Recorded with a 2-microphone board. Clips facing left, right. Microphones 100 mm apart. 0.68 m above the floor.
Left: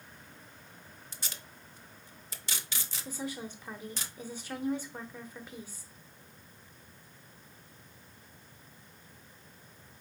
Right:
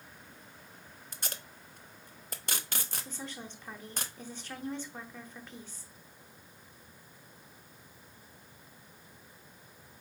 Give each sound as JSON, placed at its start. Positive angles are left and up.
{"t": 1.1, "sound": "tape being pulled", "side_deg": -55, "distance_m": 0.5}
{"t": 3.0, "sound": "a woman speaking", "side_deg": 10, "distance_m": 0.8}